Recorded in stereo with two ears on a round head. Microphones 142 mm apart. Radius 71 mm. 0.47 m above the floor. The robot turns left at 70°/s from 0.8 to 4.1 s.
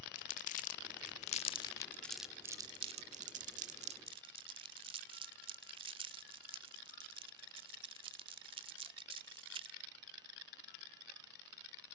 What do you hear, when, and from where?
0.1 s crumpling: 50° left (ahead or behind), 1.2 m; by 9.8 s 35° right (ahead or behind), 1.2 m